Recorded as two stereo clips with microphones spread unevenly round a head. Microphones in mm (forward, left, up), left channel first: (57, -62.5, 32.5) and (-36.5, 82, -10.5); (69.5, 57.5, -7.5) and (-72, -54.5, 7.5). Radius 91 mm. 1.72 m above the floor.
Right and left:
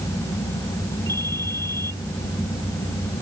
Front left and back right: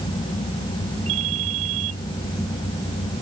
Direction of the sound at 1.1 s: 130° right.